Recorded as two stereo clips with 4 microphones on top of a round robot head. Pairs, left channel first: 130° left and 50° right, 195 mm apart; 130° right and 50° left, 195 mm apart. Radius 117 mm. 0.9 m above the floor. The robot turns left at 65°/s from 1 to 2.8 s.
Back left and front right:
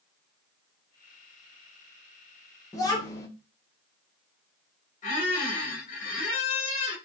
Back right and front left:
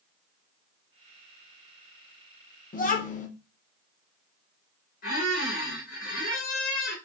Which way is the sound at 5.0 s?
Straight behind.